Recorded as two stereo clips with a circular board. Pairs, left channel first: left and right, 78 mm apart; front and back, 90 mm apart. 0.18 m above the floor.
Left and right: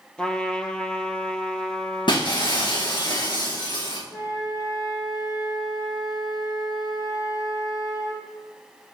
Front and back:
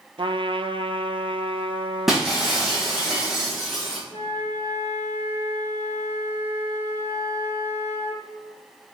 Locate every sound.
0.2 s a trumpet: 170° left, 0.8 m
2.1 s breaking glass: 95° left, 4 m
4.1 s a flute: 70° left, 4.5 m